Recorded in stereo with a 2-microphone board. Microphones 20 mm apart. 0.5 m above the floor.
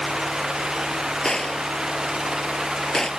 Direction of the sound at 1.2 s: 25° left (ahead or behind).